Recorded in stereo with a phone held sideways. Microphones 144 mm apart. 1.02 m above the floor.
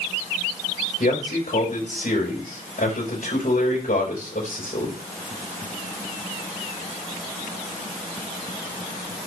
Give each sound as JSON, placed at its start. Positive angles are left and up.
{"t": 1.0, "sound": "a man speaking", "side_deg": 85, "distance_m": 4.0}